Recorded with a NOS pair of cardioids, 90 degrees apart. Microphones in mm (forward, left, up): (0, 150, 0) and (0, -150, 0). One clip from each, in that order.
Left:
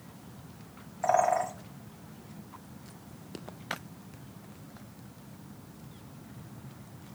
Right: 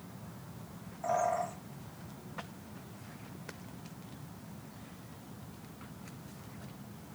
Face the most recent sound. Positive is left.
turn(degrees=55)